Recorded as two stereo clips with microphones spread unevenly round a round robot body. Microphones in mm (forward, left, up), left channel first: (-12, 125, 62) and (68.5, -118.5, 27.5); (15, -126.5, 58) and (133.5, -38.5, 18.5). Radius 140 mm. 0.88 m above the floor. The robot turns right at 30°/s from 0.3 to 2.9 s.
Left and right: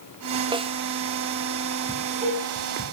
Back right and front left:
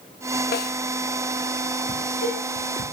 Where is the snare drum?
135° right, 1.3 m; by 0.8 s 130° right, 1.3 m.